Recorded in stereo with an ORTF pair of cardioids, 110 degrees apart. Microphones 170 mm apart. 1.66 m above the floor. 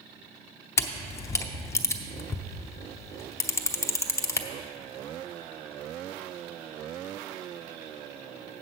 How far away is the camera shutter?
About 0.9 m.